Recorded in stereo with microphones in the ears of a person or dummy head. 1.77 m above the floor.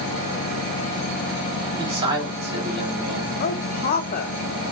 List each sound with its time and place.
1.8 s a man speaking: 25° right (ahead or behind), 1.5 m
3.4 s a woman speaking: 50° left (ahead or behind), 0.7 m